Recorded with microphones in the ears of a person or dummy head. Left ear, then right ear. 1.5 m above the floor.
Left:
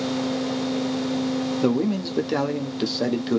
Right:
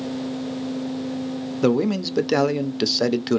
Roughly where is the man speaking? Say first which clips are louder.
Right 6 dB; centre.